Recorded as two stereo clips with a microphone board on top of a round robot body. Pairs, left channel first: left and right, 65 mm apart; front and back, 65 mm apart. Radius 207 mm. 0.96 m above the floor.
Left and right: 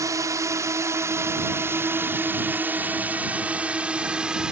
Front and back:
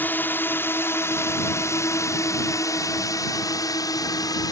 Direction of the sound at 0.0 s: 60° right.